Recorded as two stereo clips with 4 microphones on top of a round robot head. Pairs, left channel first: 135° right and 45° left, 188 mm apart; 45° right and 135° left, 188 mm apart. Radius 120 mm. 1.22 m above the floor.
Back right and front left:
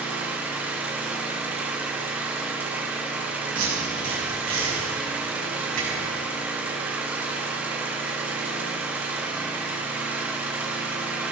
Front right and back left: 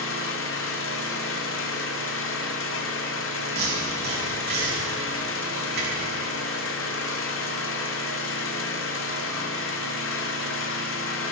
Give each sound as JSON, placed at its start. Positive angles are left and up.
{"t": 0.0, "sound": "an engine running", "azimuth_deg": -35, "distance_m": 1.6}
{"t": 3.5, "sound": "tape being pulled", "azimuth_deg": 95, "distance_m": 7.0}